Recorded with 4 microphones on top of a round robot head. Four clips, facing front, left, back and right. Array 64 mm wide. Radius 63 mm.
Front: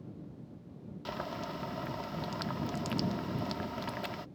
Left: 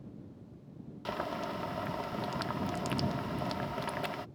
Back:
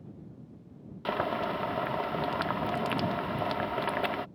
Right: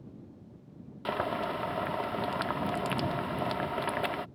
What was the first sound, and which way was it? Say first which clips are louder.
Boiling: right 5 dB, back 9 dB; 150° right.